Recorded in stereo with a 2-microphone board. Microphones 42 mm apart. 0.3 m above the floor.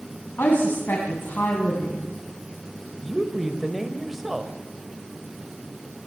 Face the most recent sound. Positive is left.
turn(degrees=-5)  # may be behind; listen again after turning